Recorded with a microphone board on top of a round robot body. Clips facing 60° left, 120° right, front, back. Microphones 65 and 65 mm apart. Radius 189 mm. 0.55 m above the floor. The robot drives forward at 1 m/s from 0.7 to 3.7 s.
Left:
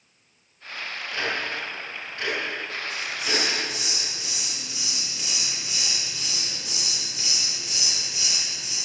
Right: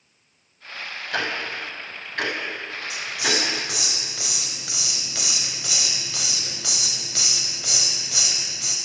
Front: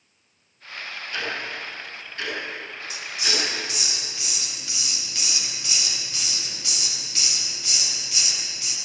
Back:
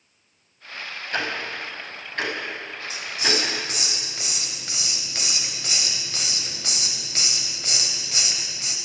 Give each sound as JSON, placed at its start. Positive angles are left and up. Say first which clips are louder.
{"t": 1.1, "sound": "ticking", "louder": "right 2 dB, back 3 dB", "azimuth_deg": -140, "distance_m": 5.5}
{"t": 2.9, "sound": "a hiss", "louder": "right 3 dB, back 4 dB", "azimuth_deg": -120, "distance_m": 3.0}